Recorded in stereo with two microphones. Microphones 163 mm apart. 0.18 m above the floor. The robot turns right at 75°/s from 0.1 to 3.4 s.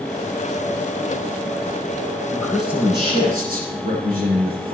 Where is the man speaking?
160° left, 7.5 m; by 4.8 s 115° right, 7.5 m.